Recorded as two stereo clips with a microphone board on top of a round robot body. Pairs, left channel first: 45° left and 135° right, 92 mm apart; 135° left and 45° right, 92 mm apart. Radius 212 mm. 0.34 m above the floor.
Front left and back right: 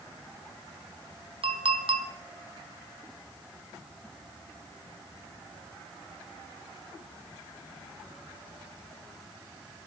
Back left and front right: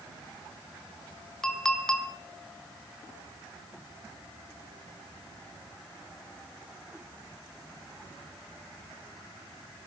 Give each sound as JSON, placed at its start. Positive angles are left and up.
{"t": 1.4, "sound": "a clink", "azimuth_deg": -140, "distance_m": 2.0}